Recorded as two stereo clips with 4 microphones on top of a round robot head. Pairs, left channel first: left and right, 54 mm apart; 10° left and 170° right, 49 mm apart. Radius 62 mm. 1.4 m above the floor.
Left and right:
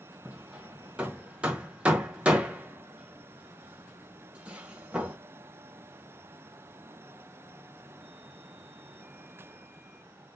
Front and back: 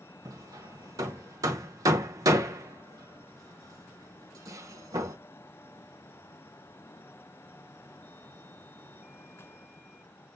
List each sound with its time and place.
0.2 s hammering: 165° right, 0.8 m